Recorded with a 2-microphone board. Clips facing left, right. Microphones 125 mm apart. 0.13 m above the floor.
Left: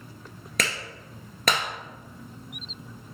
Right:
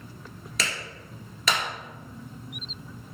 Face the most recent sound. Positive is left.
turn(degrees=55)  # may be behind; listen again after turning